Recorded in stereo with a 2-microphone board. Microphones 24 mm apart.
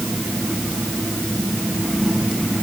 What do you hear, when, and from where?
Only background noise.